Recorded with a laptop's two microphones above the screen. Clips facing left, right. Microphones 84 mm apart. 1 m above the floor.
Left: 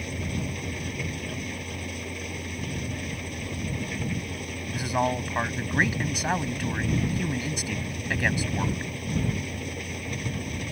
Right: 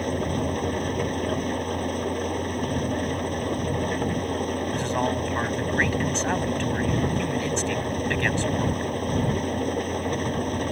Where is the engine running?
45° right (ahead or behind).